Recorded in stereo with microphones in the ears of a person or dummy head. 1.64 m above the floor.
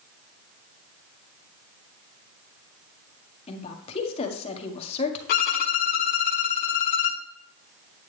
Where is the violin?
55° left (ahead or behind), 1.0 m.